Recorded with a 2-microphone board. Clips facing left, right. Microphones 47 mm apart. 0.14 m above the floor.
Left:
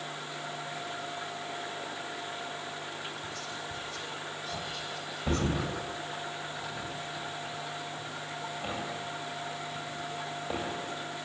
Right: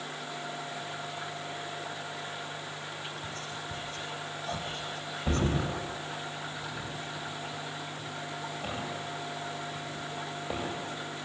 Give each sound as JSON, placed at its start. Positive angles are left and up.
{"t": 3.2, "sound": "whispering", "side_deg": -35, "distance_m": 5.0}
{"t": 5.3, "sound": "a thud", "side_deg": 0, "distance_m": 7.5}